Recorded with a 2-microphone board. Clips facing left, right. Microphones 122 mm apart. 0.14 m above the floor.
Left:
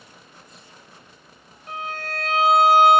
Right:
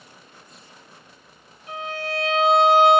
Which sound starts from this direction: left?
A violin, at 1.7 s.